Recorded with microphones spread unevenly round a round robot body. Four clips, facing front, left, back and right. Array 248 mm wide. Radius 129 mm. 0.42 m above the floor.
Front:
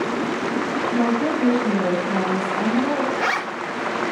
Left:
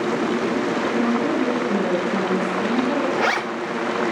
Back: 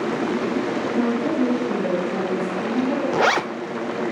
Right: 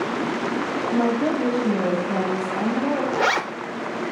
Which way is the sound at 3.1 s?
175° right.